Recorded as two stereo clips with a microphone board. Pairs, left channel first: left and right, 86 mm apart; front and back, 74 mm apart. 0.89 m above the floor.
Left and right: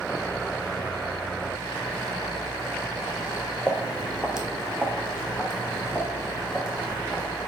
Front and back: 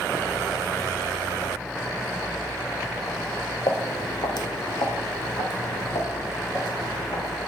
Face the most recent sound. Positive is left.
turn(degrees=0)